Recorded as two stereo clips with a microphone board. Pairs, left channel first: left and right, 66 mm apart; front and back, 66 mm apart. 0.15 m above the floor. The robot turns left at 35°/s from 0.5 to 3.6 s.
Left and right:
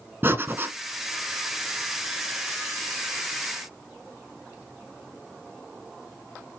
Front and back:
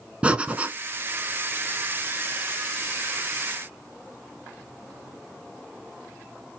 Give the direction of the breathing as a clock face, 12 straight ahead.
4 o'clock.